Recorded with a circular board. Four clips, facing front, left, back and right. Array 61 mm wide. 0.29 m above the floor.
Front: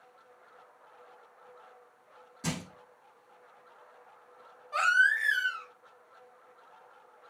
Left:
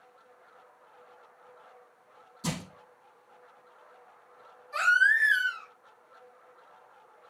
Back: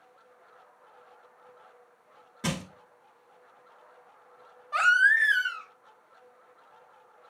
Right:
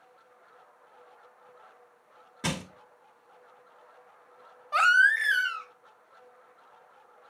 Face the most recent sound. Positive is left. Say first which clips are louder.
# right 2 dB, back 4 dB
turn(degrees=-105)